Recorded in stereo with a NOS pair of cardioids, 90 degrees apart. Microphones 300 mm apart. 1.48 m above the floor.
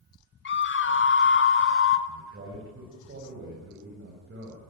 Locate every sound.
0.5 s a scream: 35° left, 3 m; by 2.0 s 40° left, 4 m
2.1 s a man speaking: 40° right, 9 m